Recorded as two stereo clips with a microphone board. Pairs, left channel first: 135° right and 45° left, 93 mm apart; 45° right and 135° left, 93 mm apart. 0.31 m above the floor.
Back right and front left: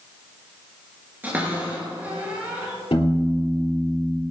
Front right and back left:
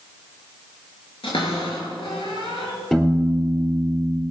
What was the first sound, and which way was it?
A cupboard door, 25° right.